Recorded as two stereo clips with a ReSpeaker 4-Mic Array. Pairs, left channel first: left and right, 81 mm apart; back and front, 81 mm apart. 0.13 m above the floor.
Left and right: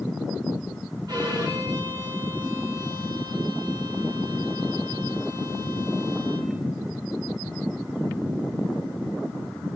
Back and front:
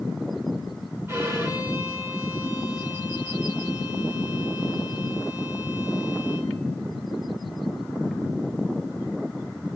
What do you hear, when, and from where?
1.1 s a violin: 60° right, 4.5 m